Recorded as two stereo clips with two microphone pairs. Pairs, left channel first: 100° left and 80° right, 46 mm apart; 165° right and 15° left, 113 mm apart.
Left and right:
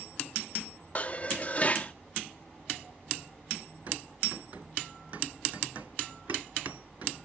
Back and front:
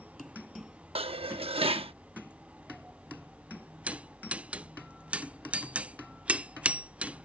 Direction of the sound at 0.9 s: 50° left.